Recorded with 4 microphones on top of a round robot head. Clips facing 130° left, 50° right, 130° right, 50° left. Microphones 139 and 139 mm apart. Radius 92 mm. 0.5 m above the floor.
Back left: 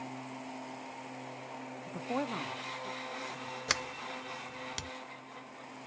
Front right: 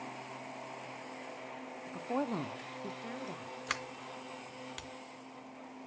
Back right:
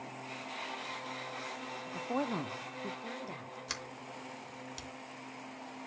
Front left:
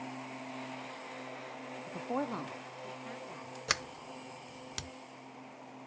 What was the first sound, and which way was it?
A woman speaking, 95° left.